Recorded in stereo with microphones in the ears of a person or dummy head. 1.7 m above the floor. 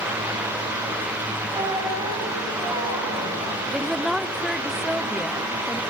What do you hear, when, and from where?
1.5 s a squeak: 20° right (ahead or behind), 4.5 m
3.7 s a woman speaking: 5° right (ahead or behind), 0.6 m